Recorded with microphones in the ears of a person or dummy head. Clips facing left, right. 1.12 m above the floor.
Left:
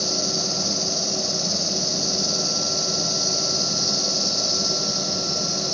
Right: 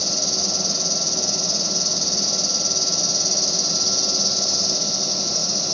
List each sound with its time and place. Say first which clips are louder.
0.0 s an insect: left 2 dB; 60° right (ahead or behind), 3.5 m